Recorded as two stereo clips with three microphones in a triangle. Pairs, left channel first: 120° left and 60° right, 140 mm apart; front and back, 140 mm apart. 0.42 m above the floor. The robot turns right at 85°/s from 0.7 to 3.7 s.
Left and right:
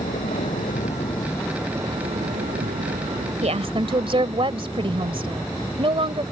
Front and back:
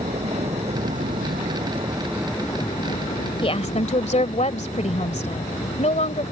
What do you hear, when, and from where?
0.0 s a vehicle: 140° left; by 6.3 s 30° left
3.4 s a woman speaking: 45° right; by 6.2 s 20° right